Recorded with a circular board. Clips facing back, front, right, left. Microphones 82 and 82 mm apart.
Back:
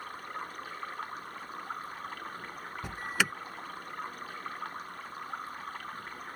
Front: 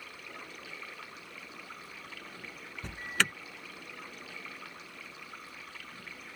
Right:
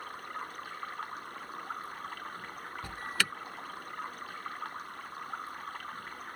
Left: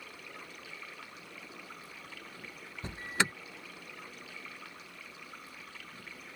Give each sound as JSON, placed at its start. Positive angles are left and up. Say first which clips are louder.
{"t": 0.0, "sound": "running water", "louder": "back 7 dB, right 8 dB", "azimuth_deg": -135}
{"t": 2.8, "sound": "an alarm", "louder": "back 1 dB, left 3 dB", "azimuth_deg": 105}